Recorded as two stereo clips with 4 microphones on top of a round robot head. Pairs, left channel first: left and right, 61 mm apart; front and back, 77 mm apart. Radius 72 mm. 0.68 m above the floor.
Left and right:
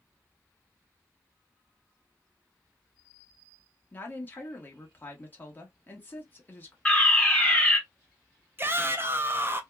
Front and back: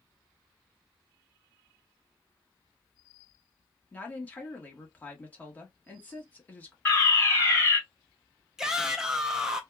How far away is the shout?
About 0.6 m.